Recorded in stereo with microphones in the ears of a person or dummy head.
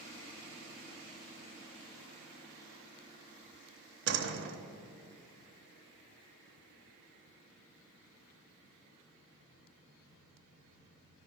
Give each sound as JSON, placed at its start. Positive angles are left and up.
{"t": 4.1, "sound": "a door slam", "side_deg": -65, "distance_m": 0.9}